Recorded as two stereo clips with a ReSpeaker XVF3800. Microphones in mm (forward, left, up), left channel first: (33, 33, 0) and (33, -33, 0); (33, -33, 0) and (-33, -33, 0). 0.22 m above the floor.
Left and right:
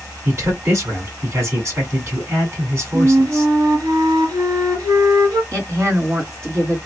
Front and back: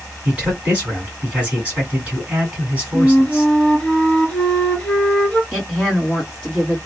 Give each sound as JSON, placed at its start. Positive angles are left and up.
{"t": 0.2, "sound": "a man speaking", "azimuth_deg": -115, "distance_m": 1.9}
{"t": 2.9, "sound": "a flute", "azimuth_deg": -75, "distance_m": 1.4}
{"t": 5.5, "sound": "a woman speaking", "azimuth_deg": -75, "distance_m": 2.0}